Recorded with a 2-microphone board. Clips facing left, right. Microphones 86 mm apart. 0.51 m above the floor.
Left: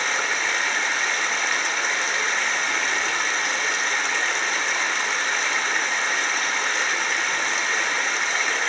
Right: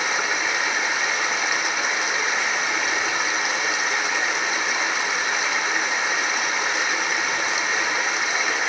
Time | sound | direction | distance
0.0 | running water | 5° right (ahead or behind) | 0.9 m